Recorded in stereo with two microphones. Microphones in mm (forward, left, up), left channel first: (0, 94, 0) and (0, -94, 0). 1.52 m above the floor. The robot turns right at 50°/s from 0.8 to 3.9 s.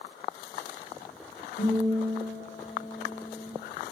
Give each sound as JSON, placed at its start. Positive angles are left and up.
{"t": 1.6, "sound": "a guitar", "azimuth_deg": 105, "distance_m": 2.0}